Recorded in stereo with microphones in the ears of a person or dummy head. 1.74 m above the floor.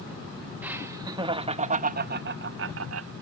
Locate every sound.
0.6 s laughter: 10° right (ahead or behind); by 3.1 s 65° right (ahead or behind)